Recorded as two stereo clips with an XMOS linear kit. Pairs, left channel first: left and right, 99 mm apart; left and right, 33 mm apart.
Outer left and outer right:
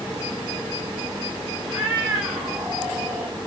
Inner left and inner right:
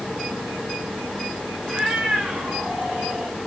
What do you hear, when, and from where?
1.6 s a cat meowing: 10° right (ahead or behind), 5 m; by 3.4 s 5° right (ahead or behind), 2.5 m